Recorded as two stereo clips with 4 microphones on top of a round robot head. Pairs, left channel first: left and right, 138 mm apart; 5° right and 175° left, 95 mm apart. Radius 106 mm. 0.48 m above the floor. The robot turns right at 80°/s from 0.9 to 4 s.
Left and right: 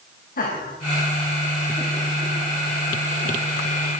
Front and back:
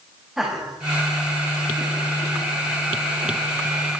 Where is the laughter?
90° left, 3 m; by 3.5 s 60° right, 3 m.